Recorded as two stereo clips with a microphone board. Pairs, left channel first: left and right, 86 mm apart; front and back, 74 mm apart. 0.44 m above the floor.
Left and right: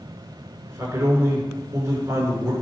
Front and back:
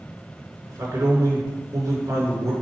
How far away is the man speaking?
About 6.5 m.